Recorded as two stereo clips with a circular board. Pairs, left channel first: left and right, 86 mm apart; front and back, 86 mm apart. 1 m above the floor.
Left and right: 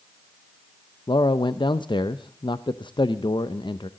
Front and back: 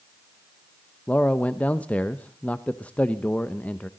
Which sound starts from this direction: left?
A man speaking, at 1.1 s.